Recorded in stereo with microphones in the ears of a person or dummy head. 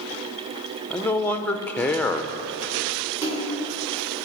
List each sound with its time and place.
0.9 s a man speaking: 10° left (ahead or behind), 0.9 m
3.2 s a splash: 15° right (ahead or behind), 4 m